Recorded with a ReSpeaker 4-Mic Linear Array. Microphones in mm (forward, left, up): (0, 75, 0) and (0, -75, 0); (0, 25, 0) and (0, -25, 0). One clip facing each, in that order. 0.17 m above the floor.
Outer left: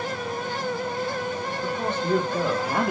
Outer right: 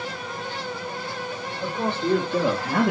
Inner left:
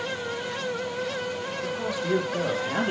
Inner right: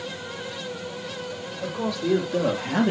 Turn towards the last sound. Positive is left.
turn(degrees=-60)  # may be behind; listen again after turning